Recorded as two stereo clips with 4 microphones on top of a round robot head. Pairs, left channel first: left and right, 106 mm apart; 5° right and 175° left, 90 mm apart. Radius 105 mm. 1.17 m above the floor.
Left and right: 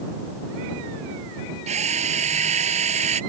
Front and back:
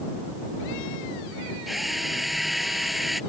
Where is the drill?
95° right.